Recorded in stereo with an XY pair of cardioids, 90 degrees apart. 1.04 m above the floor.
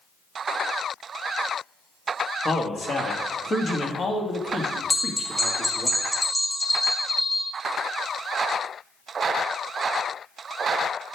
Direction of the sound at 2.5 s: 40° left.